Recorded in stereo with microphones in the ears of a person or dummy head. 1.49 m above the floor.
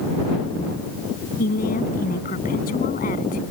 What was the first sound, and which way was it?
A woman speaking, 40° left (ahead or behind).